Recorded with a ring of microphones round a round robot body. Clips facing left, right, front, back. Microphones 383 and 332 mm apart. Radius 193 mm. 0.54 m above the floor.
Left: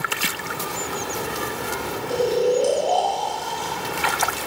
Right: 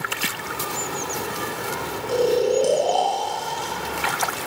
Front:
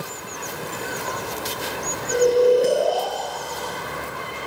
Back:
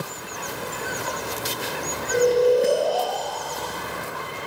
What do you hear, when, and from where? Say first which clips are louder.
2.1 s snoring: right 1 dB, front 2 dB; 50° right, 0.6 m